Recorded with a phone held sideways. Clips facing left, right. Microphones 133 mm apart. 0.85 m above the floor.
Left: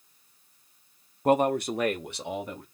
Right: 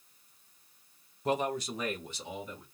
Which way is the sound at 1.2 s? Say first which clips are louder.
Left 8 dB; 55° left (ahead or behind).